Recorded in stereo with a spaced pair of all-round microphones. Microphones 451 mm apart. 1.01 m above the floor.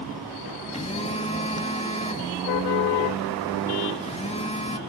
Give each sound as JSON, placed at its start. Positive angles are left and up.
{"t": 0.7, "sound": "a phone buzzing", "side_deg": 15}